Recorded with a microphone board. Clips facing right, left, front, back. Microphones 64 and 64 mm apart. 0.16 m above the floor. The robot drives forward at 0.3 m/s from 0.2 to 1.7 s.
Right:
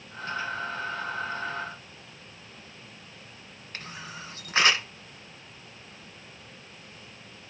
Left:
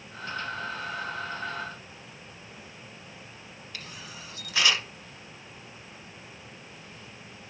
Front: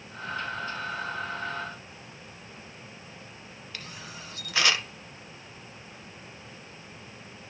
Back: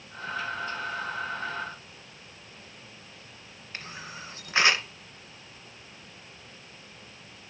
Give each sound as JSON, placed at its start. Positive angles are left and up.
{"t": 3.7, "sound": "a camera shutter", "azimuth_deg": -130, "distance_m": 2.0}